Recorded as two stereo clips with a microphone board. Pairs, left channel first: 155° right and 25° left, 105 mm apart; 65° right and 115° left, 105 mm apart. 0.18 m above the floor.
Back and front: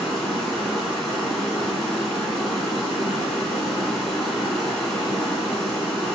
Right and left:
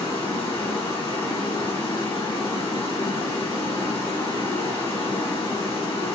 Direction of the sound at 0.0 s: 70° right.